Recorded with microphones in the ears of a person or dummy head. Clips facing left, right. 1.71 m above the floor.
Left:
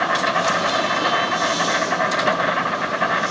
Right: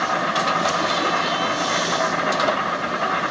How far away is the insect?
About 3 m.